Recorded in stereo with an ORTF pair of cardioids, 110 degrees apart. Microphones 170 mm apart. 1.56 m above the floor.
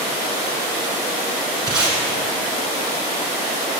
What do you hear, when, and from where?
1.7 s tape being pulled: 25° right, 2.5 m